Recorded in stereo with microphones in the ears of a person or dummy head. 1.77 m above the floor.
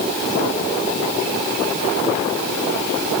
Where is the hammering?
No hammering in this recording.